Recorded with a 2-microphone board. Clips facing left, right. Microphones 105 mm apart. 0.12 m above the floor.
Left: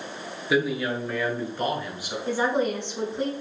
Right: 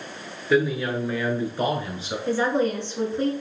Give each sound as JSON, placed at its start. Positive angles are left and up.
{"t": 0.5, "sound": "a man speaking", "side_deg": 5, "distance_m": 1.5}
{"t": 2.3, "sound": "a woman speaking", "side_deg": 15, "distance_m": 1.3}